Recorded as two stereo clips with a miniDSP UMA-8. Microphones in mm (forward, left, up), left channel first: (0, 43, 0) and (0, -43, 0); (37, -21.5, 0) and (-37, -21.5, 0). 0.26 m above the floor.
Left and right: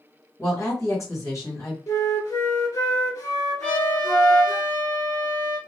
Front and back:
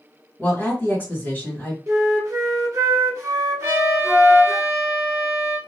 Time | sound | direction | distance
0.4 | a woman speaking | 60° left | 1.8 m
1.9 | a flute | 135° left | 1.6 m
3.6 | a trumpet | 155° left | 1.1 m